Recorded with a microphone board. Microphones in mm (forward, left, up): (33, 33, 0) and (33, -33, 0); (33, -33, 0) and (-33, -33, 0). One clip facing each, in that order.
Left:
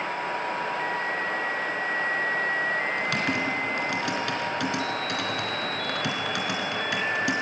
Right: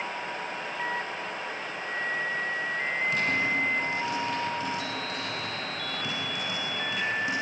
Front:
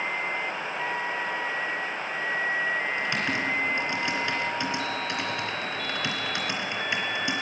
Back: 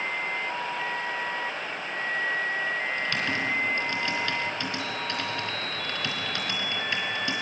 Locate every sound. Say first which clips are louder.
3.0 s typing on a keyboard: left 1 dB, front 1 dB; 70° left, 3.5 m